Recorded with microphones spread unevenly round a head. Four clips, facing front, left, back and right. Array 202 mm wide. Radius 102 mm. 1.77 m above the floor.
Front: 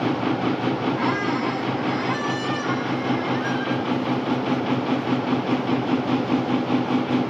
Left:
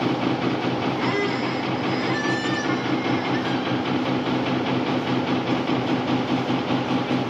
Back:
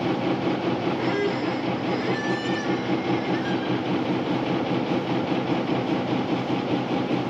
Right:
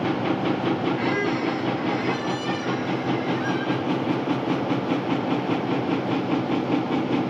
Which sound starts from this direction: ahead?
A squeak, at 1.0 s.